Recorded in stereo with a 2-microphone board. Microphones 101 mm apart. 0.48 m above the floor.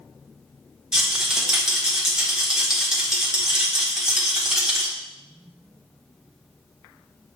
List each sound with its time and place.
0.9 s a rattle: 5° right (ahead or behind), 1.2 m